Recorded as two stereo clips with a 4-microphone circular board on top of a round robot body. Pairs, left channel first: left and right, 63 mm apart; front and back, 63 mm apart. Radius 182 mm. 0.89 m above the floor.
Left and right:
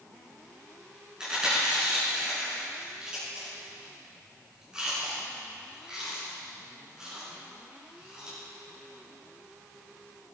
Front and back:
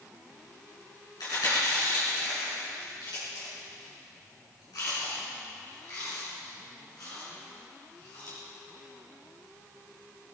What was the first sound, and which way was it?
Chewing, 15° right.